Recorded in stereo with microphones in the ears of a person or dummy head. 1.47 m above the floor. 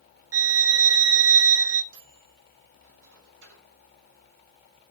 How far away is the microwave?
About 4.5 m.